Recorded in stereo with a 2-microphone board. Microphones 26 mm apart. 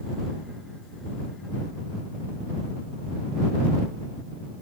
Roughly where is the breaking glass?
I don't hear breaking glass.